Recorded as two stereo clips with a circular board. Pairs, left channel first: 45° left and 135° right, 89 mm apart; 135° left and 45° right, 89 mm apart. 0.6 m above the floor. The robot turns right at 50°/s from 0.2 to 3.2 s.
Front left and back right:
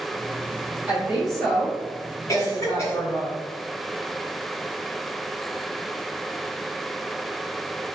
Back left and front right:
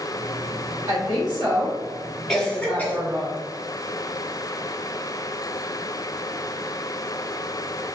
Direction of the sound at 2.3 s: 50° left.